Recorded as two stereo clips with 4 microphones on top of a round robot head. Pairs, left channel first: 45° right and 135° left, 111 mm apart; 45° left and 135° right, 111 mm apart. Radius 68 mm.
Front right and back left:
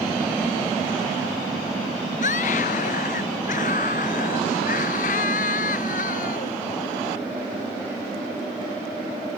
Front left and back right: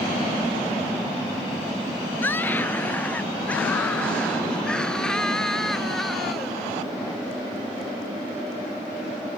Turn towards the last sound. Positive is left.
turn(degrees=-45)